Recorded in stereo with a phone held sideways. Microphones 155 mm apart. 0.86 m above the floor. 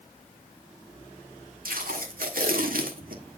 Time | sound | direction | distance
1.6 | tape being pulled | 70° right (ahead or behind) | 1.6 m